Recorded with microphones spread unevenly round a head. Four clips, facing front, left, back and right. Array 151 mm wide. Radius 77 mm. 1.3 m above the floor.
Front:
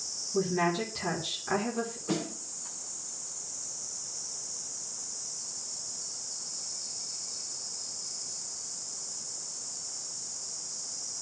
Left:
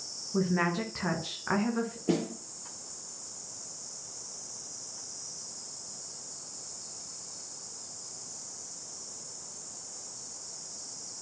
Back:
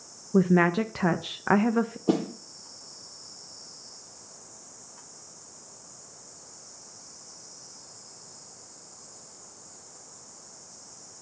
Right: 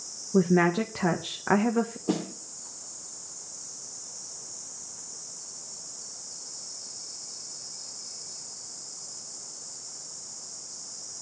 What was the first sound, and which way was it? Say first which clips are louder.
A woman speaking: right 7 dB, back 6 dB; 145° right.